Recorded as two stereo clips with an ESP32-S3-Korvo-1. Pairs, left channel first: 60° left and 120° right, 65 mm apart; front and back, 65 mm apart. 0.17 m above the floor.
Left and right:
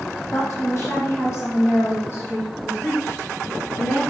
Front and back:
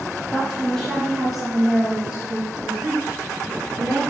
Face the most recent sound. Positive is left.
turn(degrees=120)